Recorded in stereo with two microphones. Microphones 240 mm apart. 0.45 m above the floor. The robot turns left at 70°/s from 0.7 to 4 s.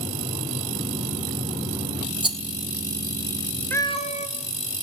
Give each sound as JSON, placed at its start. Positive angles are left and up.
{"t": 2.2, "sound": "a rattle", "side_deg": -20, "distance_m": 0.9}
{"t": 3.7, "sound": "a cat meowing", "side_deg": 10, "distance_m": 1.4}